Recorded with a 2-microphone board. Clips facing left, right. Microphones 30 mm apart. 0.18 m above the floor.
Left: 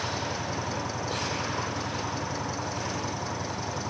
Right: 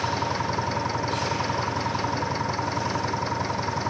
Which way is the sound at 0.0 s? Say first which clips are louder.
Right 5 dB; 40° right (ahead or behind).